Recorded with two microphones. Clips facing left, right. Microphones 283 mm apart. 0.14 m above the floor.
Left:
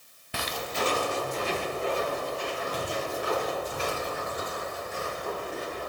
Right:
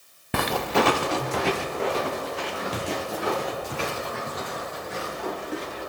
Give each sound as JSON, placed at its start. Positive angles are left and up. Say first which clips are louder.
{"t": 0.3, "sound": "footsteps", "louder": "right 9 dB", "side_deg": -70, "distance_m": 0.6}